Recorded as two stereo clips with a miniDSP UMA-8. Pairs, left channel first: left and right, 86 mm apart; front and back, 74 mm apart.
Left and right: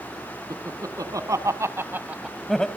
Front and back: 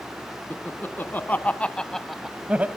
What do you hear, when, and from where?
0.5 s laughter: 55° right, 2.5 m; by 2.7 s 160° left, 1.1 m